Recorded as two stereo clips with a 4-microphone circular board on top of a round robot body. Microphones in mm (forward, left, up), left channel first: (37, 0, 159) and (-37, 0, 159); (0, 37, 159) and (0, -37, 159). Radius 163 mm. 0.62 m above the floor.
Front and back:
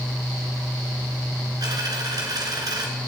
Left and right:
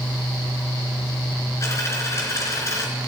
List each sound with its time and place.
1.6 s a dropped coin: 140° left, 2.5 m